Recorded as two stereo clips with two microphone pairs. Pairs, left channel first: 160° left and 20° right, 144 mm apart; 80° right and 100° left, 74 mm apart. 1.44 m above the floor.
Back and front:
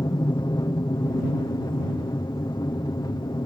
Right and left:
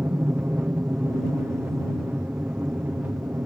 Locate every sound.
0.0 s an aircraft: 135° left